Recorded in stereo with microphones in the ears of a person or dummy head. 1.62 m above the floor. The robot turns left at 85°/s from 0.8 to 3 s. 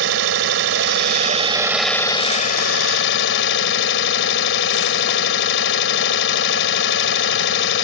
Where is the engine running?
90° right; by 7.8 s 80° left.